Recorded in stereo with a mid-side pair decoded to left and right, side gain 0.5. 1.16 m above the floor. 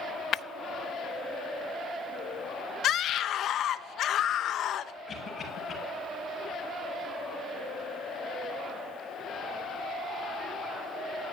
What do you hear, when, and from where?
0.3 s breaking glass: 50° left, 0.6 m
2.8 s a scream: 60° left, 1.2 m
5.1 s a cough: 35° left, 9 m